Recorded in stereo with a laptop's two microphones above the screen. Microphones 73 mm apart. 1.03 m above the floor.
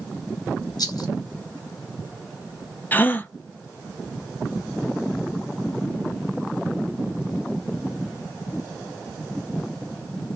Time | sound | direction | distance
0.8 | a rattle | 60° left (ahead or behind) | 0.9 m
2.9 | a gasp | 25° left (ahead or behind) | 0.5 m